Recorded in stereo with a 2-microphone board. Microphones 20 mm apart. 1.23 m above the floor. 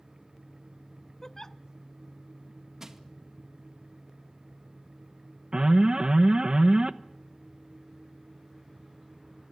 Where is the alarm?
45° right (ahead or behind), 1.0 m.